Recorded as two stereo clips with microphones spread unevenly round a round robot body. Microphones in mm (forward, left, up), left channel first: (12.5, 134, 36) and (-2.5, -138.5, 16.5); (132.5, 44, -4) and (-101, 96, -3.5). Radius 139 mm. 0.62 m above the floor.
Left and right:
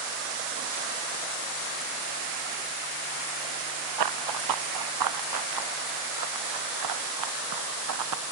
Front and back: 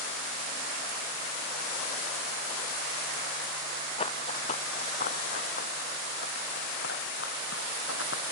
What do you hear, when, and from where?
4.0 s running footsteps: 85° right; by 8.2 s 65° right